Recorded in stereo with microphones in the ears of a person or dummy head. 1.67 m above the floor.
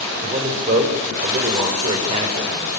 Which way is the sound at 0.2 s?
40° right (ahead or behind).